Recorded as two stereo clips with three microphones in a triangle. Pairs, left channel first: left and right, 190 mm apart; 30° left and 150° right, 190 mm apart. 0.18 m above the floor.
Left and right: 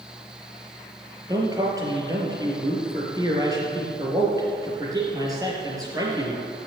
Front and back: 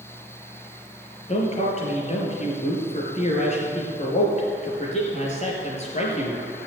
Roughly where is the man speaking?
Ahead.